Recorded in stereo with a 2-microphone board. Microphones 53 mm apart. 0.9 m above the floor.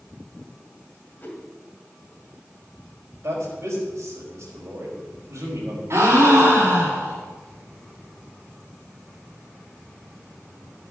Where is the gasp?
55° right (ahead or behind), 4 m.